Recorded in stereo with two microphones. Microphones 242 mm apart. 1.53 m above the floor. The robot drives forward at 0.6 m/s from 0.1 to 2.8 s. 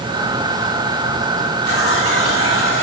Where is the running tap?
65° left (ahead or behind), 3.5 m; by 2.8 s 55° left (ahead or behind), 3.5 m.